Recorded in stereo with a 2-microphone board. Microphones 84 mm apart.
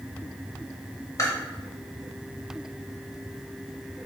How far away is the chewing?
About 1.0 m.